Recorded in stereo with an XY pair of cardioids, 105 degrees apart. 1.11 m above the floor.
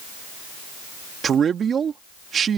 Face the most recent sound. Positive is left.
turn(degrees=-50)